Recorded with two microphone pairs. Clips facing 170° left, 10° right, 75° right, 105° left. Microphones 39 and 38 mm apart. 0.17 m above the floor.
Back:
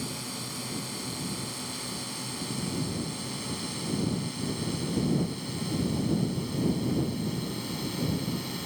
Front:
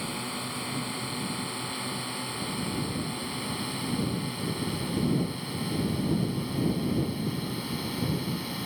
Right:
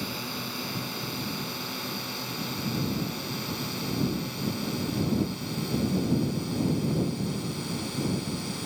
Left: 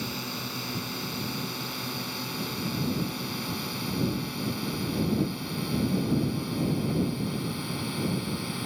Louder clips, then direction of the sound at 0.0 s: Front 3 dB, even; 10° left.